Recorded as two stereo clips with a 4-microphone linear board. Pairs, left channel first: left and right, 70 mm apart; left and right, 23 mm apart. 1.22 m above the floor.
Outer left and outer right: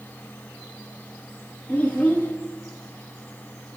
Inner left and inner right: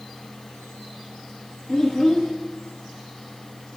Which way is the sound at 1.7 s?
25° left (ahead or behind).